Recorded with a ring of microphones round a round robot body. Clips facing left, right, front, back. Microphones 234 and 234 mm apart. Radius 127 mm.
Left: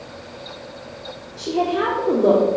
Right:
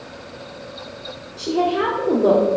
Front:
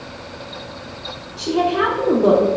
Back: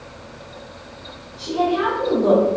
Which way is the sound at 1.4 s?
Straight ahead.